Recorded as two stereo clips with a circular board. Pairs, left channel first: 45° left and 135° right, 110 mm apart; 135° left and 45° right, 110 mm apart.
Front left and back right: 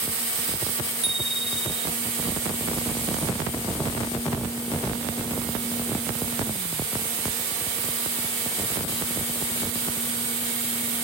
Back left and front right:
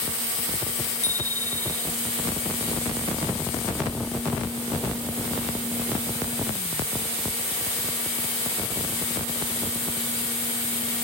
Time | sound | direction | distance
1.0 | a bicycle bell | 105° right | ?